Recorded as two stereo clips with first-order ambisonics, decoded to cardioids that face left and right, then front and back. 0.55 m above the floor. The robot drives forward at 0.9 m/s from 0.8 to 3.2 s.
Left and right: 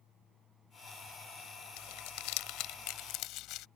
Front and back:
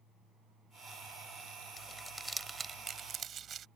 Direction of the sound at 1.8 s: 80° left.